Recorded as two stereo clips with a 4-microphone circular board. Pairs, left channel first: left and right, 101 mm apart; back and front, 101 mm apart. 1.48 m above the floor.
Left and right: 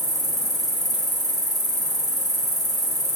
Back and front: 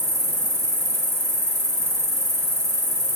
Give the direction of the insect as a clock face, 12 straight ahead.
2 o'clock.